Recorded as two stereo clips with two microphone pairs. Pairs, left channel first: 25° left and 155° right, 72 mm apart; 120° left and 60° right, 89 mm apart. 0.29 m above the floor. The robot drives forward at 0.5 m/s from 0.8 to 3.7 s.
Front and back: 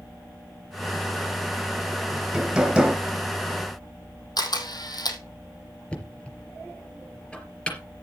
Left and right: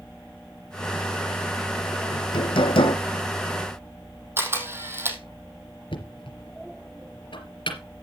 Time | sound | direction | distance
2.1 | hammering | 120° left | 2 m
4.4 | a camera shutter | straight ahead | 2.5 m
5.9 | knocking | 100° left | 3.5 m